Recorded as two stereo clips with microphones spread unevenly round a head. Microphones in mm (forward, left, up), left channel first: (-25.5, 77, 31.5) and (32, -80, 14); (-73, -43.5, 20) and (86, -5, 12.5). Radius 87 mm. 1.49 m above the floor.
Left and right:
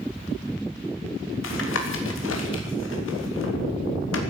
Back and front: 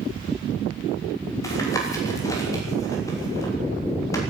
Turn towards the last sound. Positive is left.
turn(degrees=120)